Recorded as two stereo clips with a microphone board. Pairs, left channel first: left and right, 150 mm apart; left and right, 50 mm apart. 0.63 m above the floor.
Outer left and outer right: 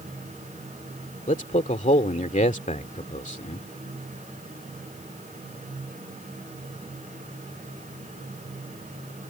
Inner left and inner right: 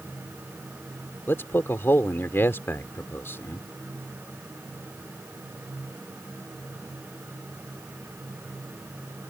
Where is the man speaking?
55° left (ahead or behind).